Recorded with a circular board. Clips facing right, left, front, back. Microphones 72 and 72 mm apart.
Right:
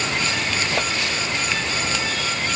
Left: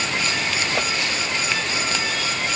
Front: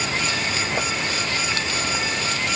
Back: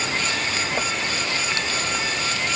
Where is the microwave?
I don't hear a microwave.